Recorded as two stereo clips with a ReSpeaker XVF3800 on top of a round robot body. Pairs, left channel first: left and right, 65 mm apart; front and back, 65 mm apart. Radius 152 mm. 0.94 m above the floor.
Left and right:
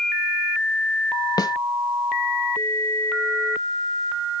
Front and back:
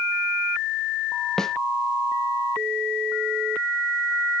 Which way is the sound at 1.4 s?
85° left.